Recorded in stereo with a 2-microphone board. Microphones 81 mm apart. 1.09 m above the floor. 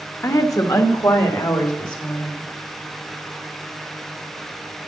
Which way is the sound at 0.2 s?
40° left (ahead or behind).